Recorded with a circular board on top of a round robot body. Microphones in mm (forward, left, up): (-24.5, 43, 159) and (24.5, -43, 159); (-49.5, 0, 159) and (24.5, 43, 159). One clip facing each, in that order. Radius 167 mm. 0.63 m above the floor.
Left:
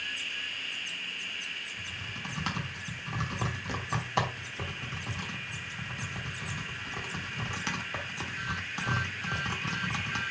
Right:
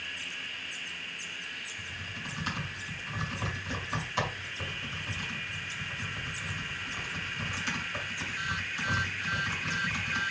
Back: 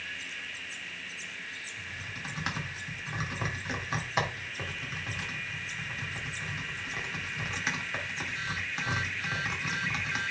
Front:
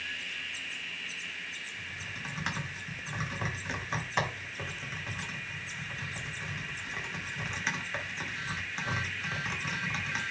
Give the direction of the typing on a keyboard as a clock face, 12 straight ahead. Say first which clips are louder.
Left 1 dB, back 1 dB; 8 o'clock.